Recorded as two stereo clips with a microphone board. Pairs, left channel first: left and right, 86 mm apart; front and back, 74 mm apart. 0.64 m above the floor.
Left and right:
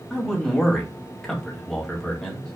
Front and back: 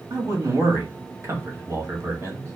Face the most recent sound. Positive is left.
turn(degrees=175)